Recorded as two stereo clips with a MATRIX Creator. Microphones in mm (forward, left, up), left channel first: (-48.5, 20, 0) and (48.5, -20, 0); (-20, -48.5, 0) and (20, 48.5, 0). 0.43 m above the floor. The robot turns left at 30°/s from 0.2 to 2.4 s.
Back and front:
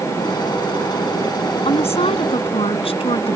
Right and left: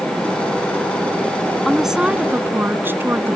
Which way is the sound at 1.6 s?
160° left.